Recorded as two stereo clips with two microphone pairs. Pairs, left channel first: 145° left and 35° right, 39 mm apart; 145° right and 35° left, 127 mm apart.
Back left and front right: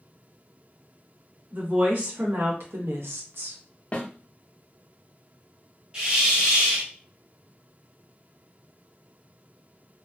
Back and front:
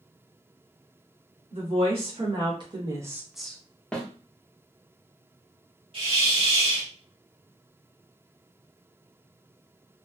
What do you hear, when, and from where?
1.5 s a woman speaking: straight ahead, 1.9 m; by 3.6 s 70° right, 0.7 m
3.9 s a snare drum: 135° left, 0.8 m
5.9 s a hiss: 25° left, 1.3 m